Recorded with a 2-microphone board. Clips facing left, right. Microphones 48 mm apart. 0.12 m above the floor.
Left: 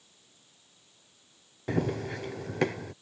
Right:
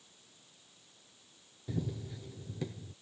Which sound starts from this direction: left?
Running footsteps, at 1.7 s.